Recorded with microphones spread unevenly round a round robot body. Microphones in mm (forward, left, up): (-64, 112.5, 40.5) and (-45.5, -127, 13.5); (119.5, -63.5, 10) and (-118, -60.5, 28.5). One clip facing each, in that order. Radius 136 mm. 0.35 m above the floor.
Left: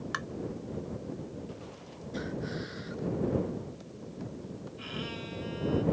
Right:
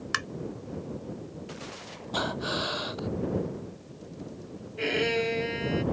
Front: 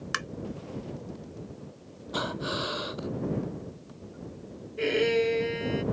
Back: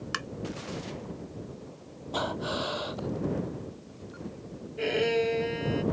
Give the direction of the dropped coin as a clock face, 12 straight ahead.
No dropped coin in this recording.